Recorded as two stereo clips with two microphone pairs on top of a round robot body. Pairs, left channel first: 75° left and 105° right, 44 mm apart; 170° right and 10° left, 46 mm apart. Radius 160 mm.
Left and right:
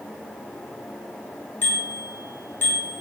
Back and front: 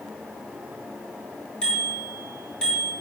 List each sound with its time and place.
1.6 s a bicycle bell: 115° left, 8 m